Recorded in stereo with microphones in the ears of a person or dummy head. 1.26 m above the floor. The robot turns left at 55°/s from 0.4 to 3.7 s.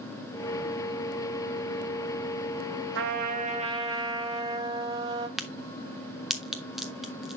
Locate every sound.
3.0 s a trumpet: 110° right, 1.3 m; by 5.3 s 155° right, 1.3 m
5.4 s a crack: centre (ahead or behind), 0.6 m